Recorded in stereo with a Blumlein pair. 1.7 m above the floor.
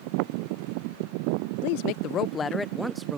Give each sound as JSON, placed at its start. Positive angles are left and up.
{"t": 1.6, "sound": "a woman speaking", "azimuth_deg": 50}